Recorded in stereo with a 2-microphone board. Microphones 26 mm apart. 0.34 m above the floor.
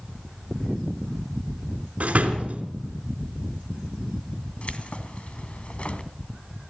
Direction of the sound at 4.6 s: 55° left (ahead or behind).